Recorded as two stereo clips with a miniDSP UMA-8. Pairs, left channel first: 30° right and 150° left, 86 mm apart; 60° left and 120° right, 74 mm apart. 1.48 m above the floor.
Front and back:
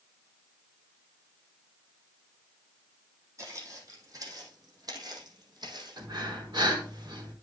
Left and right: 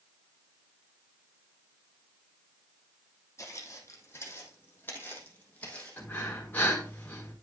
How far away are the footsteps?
About 3.5 m.